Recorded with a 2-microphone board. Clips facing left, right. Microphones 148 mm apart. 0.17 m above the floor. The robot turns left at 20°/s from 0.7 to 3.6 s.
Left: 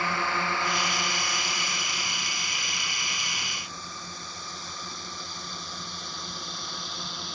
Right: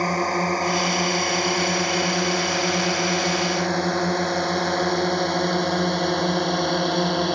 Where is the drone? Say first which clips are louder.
Right 7 dB; 40° right (ahead or behind); by 7.4 s 70° right (ahead or behind).